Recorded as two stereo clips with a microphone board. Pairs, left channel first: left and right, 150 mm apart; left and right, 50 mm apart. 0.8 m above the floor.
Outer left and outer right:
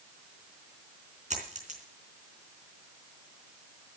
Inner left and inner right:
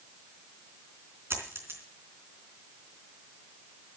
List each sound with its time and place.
1.3 s a dropped coin: 50° right (ahead or behind), 3.5 m